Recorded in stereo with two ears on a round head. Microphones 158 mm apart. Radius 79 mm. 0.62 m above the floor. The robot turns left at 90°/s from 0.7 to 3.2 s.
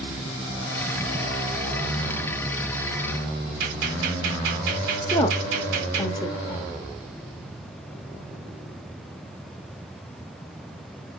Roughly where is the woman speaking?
Left.